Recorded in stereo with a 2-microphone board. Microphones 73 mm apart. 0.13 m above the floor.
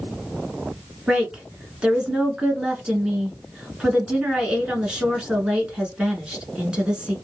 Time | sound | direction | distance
1.1 | a woman speaking | 15° right (ahead or behind) | 1.2 m